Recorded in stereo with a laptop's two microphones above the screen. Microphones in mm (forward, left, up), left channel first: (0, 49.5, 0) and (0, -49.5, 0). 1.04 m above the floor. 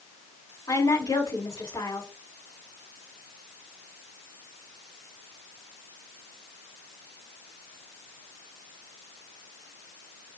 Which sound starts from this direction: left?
A woman speaking, at 0.7 s.